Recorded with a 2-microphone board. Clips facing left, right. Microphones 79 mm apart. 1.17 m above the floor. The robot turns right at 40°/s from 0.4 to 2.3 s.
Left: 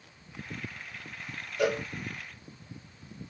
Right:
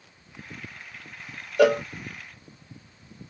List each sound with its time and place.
1.6 s a cowbell: 80° right, 0.7 m; by 1.8 s 90° right, 0.7 m